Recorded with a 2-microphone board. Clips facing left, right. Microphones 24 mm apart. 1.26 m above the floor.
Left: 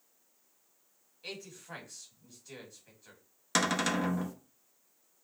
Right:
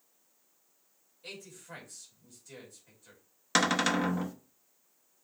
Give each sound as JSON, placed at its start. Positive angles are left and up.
{"t": 1.2, "sound": "a man speaking", "side_deg": 25, "distance_m": 2.0}
{"t": 3.5, "sound": "a cupboard door", "side_deg": -15, "distance_m": 0.6}